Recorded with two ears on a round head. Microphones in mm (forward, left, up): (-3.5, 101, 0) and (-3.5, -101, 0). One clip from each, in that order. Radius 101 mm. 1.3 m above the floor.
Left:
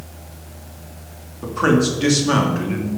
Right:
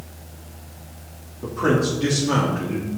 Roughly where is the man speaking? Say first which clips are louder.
Left 3 dB; left.